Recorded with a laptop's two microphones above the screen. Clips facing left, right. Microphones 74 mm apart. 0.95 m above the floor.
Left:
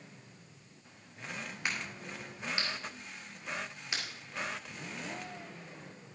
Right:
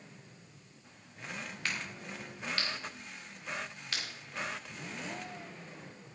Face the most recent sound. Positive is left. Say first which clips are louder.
# left 1 dB
turn(degrees=20)  # may be behind; listen again after turning